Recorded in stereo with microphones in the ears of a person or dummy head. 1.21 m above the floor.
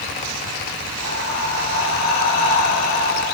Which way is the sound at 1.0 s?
80° left.